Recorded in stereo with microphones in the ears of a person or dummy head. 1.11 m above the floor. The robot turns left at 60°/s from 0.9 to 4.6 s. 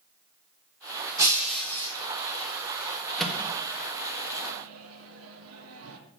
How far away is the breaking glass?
About 1.0 m.